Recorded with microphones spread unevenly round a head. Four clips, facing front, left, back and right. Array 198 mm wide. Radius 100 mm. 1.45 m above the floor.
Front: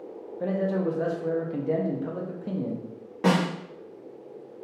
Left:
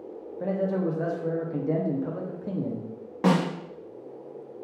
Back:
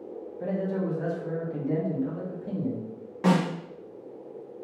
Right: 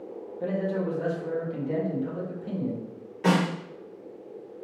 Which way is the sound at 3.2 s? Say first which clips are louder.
Left 1 dB, even; 65° left.